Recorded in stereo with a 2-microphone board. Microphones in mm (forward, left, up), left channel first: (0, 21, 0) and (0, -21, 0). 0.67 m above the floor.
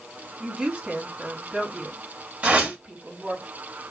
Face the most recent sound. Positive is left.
turn(degrees=-35)  # may be behind; listen again after turning